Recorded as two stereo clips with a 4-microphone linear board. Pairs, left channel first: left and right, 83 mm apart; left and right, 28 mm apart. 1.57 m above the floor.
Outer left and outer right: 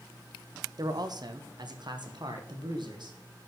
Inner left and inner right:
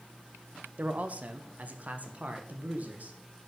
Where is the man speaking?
50° right (ahead or behind), 0.9 m; by 3.2 s 65° right (ahead or behind), 2 m.